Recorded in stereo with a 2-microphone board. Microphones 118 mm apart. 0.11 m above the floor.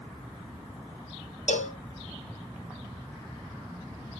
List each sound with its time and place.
1.5 s a cowbell: 80° left, 0.7 m